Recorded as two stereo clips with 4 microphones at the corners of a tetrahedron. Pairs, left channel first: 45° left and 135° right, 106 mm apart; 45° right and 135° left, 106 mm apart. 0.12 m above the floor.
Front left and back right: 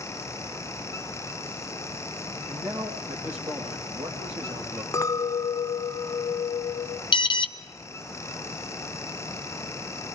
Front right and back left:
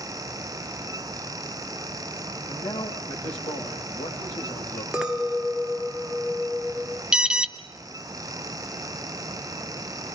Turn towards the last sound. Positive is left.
turn(degrees=55)